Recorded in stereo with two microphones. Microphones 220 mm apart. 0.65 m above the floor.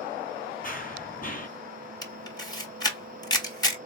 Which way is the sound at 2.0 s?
20° left (ahead or behind).